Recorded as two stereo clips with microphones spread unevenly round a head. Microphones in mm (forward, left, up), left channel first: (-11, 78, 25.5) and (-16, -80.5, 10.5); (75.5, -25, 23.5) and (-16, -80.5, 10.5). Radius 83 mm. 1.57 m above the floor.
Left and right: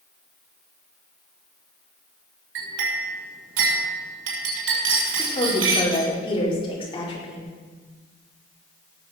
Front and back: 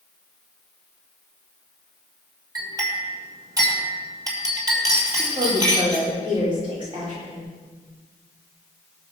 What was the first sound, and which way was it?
A clink, 90° right.